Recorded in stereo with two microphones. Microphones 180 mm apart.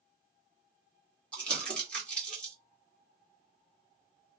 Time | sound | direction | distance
1.3 | crumpling | 5° left (ahead or behind) | 1.7 m